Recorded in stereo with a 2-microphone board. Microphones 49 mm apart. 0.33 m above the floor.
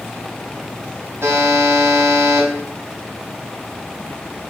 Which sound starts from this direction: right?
A buzzer, at 1.2 s.